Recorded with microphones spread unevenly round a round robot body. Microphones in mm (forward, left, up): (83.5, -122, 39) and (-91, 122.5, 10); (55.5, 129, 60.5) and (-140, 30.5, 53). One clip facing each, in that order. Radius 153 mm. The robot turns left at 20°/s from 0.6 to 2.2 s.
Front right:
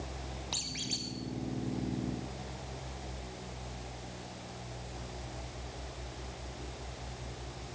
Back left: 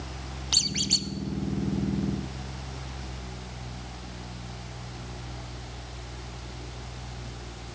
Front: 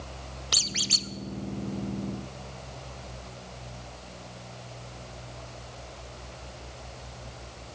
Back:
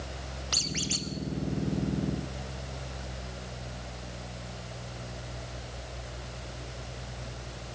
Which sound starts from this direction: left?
A squeak, at 0.5 s.